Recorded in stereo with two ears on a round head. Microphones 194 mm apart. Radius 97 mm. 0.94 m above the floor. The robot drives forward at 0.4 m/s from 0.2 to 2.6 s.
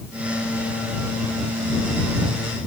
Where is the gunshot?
No gunshot in this recording.